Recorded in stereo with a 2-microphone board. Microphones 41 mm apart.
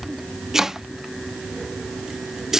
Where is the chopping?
10° right (ahead or behind).